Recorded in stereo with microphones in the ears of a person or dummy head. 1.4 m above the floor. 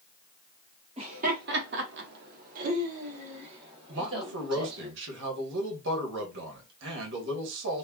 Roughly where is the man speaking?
Right.